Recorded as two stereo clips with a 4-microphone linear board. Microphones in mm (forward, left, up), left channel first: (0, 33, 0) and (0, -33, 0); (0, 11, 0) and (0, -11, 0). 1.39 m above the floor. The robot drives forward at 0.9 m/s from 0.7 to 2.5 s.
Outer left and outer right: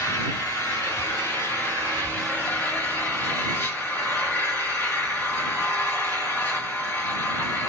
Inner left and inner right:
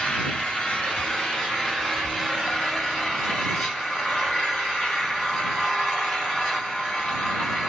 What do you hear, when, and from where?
0.0 s an engine running: 55° left (ahead or behind), 1.5 m; by 7.7 s 30° left (ahead or behind), 2.5 m